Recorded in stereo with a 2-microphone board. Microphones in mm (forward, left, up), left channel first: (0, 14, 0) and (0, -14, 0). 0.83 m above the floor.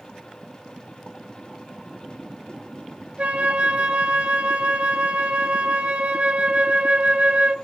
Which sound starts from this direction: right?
A flute, at 3.2 s.